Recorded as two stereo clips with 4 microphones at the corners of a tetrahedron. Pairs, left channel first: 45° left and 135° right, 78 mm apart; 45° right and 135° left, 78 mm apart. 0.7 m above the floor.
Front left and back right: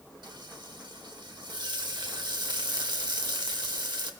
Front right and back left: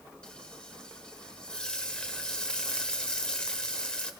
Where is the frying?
120° right, 1.0 m.